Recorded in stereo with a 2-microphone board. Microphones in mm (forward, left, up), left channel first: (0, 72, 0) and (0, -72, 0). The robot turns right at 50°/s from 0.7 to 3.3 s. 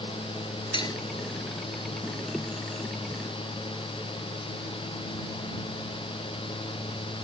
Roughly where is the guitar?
I don't hear a guitar.